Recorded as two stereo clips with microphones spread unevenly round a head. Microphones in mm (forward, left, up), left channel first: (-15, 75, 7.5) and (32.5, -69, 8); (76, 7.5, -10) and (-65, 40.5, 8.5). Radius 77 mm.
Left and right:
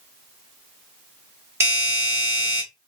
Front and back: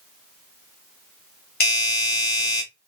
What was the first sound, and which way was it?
A doorbell, straight ahead.